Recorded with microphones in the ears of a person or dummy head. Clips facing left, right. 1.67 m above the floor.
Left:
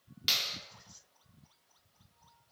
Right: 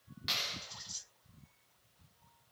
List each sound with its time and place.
0.3 s a clap: 40° left (ahead or behind), 4 m